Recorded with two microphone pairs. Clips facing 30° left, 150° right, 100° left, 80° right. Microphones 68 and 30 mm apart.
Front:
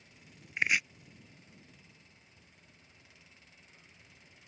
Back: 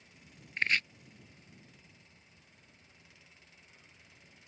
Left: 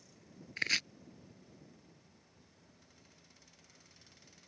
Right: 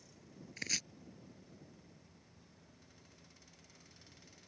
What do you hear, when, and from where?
0.6 s chopping: 105° left